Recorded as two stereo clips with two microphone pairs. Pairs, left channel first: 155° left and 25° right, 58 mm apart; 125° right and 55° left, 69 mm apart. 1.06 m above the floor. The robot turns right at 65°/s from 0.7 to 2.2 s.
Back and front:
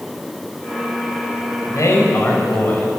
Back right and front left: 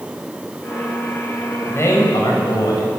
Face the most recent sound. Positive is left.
turn(degrees=-150)